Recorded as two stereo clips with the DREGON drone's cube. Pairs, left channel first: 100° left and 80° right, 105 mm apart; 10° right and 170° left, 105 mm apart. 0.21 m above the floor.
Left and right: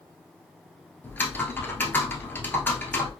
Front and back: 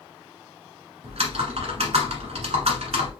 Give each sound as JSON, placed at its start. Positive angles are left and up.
{"t": 1.0, "sound": "typing on a keyboard", "azimuth_deg": 170, "distance_m": 1.2}